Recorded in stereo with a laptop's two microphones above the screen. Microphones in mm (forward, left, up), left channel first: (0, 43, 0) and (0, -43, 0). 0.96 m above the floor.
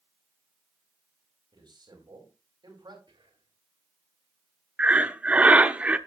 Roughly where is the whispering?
Right.